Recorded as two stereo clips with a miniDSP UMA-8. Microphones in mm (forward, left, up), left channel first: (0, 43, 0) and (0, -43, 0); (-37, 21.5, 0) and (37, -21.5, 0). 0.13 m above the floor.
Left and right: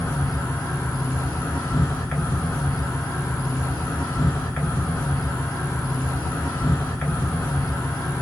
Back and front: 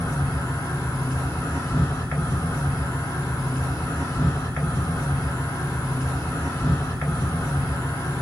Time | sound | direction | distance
0.0 | an insect | 145° left | 1.5 m